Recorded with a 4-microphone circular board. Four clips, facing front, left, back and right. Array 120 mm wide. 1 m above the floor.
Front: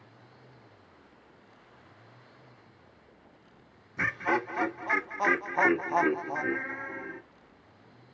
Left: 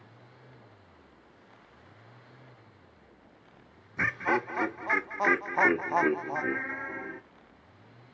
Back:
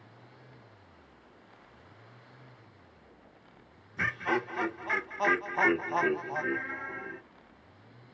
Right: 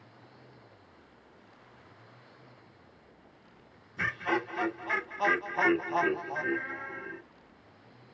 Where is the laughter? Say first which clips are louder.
Left 3 dB, front 2 dB; 65° left, 0.7 m.